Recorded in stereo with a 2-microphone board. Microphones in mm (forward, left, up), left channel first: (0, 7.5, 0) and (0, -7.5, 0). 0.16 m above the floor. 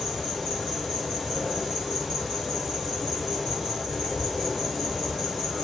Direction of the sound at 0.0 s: 10° right (ahead or behind).